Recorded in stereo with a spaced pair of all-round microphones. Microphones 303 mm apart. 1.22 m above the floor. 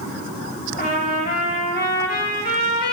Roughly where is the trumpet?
Left.